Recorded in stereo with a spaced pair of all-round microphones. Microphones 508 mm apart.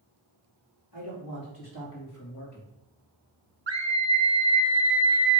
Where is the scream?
60° right (ahead or behind), 0.9 m.